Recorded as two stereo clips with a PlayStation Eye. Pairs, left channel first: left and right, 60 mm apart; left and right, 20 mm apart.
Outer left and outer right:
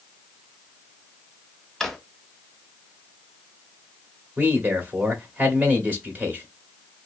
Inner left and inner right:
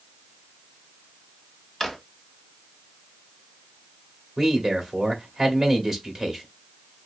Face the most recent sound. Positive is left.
turn(degrees=-25)  # may be behind; listen again after turning